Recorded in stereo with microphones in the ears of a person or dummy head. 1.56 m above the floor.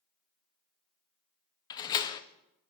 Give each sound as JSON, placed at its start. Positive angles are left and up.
{"t": 1.7, "sound": "a door slam", "side_deg": 25, "distance_m": 0.6}